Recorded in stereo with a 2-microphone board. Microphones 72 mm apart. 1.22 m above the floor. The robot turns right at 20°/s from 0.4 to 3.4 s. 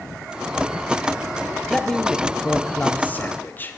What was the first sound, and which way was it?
A man speaking, 5° left.